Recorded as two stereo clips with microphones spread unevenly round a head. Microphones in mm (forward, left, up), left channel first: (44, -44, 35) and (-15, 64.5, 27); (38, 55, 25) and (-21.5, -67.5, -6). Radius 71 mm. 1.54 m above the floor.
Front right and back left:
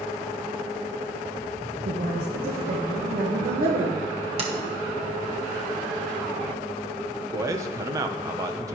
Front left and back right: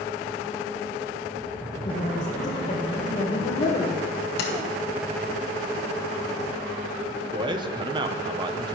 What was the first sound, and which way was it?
A woman speaking, 105° left.